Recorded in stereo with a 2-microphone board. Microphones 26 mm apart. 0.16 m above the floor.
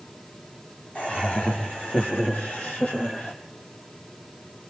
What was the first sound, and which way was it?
Laughter, 70° left (ahead or behind).